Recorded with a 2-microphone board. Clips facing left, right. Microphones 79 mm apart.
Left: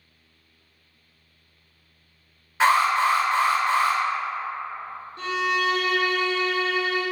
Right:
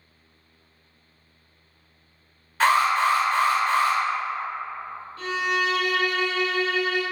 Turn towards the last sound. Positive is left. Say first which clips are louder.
# left 1 dB
turn(degrees=30)  # may be behind; listen again after turning